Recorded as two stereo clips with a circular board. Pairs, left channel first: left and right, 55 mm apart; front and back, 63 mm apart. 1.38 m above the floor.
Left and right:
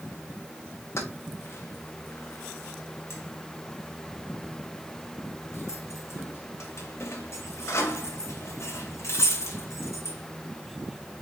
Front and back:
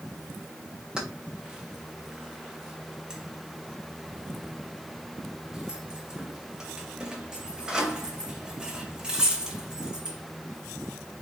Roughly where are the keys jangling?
Left.